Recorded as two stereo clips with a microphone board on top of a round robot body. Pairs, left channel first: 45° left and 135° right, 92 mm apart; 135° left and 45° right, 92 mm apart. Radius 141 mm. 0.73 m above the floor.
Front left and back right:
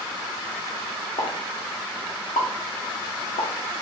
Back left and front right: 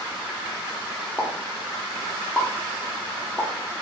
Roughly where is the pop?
Ahead left.